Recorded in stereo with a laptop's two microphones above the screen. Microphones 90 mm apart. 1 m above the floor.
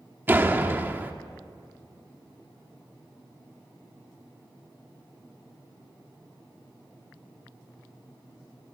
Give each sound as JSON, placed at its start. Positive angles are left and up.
{"t": 0.3, "sound": "a door slam", "side_deg": -20, "distance_m": 1.2}